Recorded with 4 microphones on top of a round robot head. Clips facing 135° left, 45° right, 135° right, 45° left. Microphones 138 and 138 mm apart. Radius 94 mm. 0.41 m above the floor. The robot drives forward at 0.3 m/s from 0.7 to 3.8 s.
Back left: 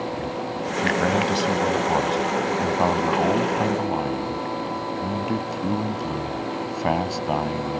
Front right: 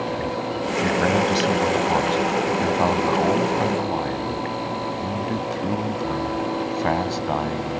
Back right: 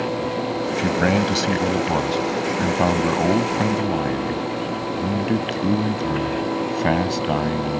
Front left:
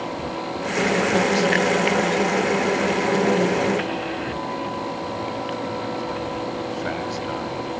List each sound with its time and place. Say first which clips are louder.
0.8 s a man speaking: front right 1 dB, front left 1 dB; 135° right; by 7.8 s 145° right